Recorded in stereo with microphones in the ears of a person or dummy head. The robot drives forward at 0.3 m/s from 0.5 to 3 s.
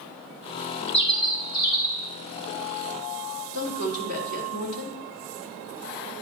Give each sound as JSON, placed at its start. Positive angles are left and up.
{"t": 0.9, "sound": "a bird", "side_deg": 25, "distance_m": 0.8}
{"t": 3.5, "sound": "a woman speaking", "side_deg": 80, "distance_m": 2.5}